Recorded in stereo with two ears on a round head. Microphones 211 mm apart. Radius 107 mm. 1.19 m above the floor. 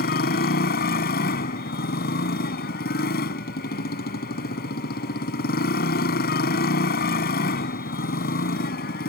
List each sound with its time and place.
0.0 s a motorcycle: 40° left (ahead or behind)